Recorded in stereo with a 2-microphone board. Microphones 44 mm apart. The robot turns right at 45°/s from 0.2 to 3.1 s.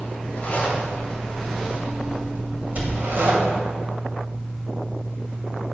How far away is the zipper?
About 1.6 m.